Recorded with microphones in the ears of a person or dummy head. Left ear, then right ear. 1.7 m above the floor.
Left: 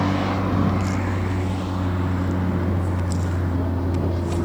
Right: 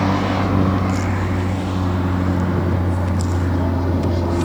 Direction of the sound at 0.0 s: 5° right (ahead or behind).